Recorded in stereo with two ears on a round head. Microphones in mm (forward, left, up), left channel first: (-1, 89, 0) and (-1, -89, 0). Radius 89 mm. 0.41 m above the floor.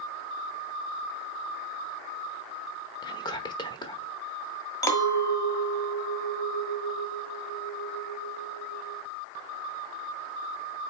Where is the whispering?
20° left (ahead or behind), 1.0 m.